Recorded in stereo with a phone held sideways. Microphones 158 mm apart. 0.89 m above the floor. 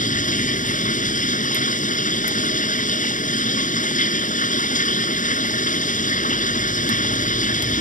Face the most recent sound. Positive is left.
turn(degrees=55)  # may be behind; listen again after turning